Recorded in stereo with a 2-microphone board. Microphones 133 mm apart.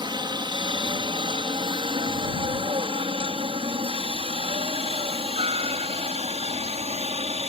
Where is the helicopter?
35° right (ahead or behind); by 7.5 s 50° right (ahead or behind).